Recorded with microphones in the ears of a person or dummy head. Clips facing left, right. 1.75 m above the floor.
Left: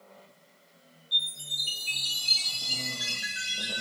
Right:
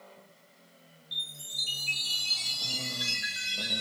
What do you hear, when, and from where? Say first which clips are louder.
1.1 s a chime: left 4 dB; 5° left (ahead or behind), 1.5 m